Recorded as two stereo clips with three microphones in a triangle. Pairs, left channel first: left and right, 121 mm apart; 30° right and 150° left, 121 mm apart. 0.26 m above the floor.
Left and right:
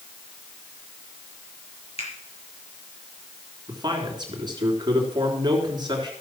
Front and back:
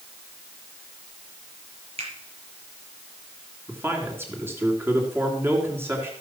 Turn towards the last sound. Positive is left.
turn(degrees=-140)